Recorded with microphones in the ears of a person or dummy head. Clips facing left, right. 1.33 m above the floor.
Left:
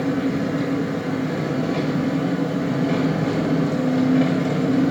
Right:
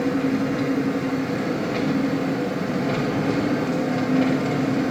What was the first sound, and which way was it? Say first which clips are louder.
An engine running: even; 50° left (ahead or behind).